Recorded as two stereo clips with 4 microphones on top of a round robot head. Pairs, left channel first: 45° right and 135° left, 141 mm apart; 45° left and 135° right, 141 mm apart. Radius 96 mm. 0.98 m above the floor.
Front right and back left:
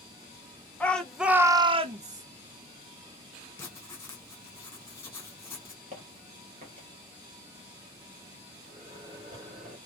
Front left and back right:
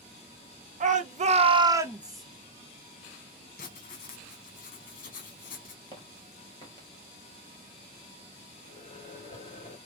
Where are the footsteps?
100° left, 1.3 m.